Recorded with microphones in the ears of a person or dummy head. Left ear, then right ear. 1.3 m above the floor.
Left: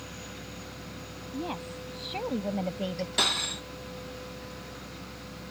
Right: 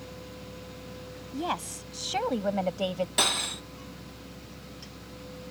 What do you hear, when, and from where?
1.3 s a woman speaking: 50° right (ahead or behind)
3.2 s cutlery clinking: 15° right (ahead or behind)